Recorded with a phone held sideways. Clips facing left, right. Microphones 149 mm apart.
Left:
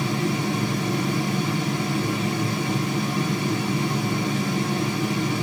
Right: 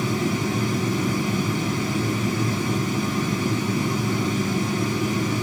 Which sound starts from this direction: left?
A fan, at 0.0 s.